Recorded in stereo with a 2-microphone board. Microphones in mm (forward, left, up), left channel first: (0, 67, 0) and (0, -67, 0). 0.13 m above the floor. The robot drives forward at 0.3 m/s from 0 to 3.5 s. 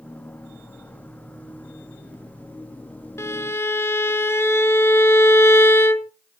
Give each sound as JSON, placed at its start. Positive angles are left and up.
{"t": 3.2, "sound": "a violin", "side_deg": 20, "distance_m": 0.6}